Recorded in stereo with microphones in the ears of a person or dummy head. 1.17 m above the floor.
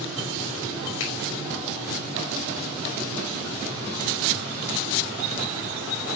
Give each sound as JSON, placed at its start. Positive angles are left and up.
{"t": 1.0, "sound": "a finger snap", "side_deg": 75, "distance_m": 5.0}